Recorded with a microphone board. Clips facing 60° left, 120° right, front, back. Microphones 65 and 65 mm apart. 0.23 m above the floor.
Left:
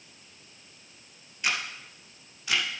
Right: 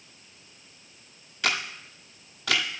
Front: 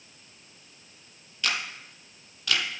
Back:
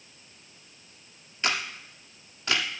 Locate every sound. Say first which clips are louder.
1.4 s a camera shutter: right 2 dB, back 1 dB; 120° right, 1.3 m